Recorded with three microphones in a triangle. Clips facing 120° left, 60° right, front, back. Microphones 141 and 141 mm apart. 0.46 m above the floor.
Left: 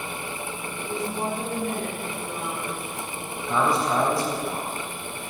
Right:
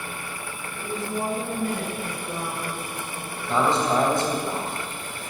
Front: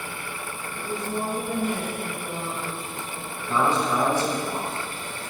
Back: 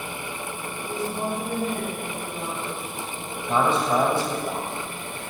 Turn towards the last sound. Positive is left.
turn(degrees=-125)